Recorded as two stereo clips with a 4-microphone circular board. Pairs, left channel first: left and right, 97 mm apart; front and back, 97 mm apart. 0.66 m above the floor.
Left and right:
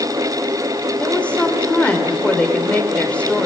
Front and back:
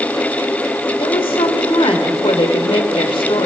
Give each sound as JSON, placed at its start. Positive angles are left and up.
{"t": 1.0, "sound": "a woman speaking", "azimuth_deg": 15, "distance_m": 2.5}